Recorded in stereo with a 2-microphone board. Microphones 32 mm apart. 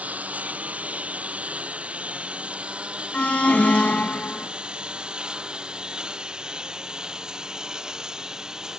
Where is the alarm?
50° left (ahead or behind).